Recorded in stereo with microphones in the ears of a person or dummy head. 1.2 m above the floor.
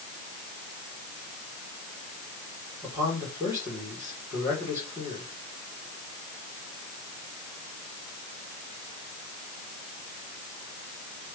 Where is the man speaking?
10° right (ahead or behind), 4 m.